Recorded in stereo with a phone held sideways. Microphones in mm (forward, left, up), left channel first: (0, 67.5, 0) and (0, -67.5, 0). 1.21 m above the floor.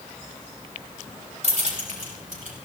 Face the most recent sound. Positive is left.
turn(degrees=-75)  # may be behind; listen again after turning